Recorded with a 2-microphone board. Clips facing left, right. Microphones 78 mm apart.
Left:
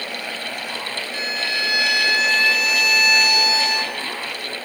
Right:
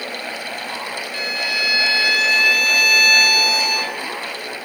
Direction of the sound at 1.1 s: 25° left (ahead or behind).